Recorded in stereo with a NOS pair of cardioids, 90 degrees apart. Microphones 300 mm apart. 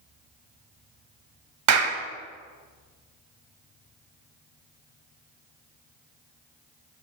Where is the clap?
65° right, 1.1 m.